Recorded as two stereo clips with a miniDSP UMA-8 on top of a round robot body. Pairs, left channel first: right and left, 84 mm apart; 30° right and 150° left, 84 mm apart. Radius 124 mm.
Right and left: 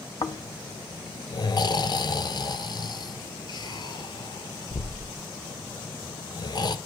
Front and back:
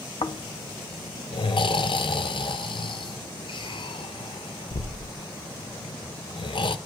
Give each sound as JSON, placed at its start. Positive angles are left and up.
{"t": 0.2, "sound": "snoring", "azimuth_deg": -50, "distance_m": 0.6}